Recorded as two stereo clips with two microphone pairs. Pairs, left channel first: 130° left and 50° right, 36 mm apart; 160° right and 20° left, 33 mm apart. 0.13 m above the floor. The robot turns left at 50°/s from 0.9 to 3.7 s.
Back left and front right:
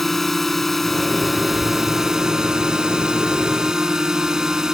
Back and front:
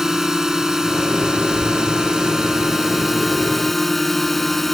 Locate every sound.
0.0 s a drone: 60° left; by 4.8 s 80° right